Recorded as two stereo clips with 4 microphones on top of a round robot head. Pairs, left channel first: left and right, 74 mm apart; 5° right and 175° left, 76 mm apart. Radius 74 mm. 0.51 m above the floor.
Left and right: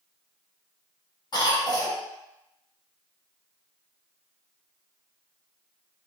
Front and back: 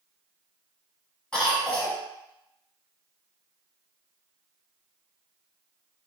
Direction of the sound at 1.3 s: 75° left.